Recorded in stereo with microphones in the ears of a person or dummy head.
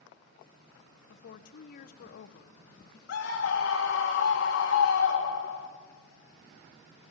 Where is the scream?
75° left (ahead or behind), 3 m.